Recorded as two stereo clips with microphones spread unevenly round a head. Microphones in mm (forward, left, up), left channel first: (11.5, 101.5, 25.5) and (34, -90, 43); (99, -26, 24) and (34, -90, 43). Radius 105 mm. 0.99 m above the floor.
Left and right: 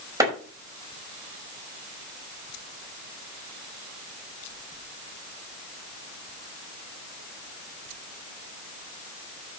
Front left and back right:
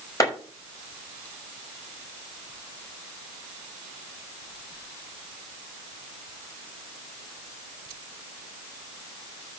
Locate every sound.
0.2 s a clap: 10° right, 6.5 m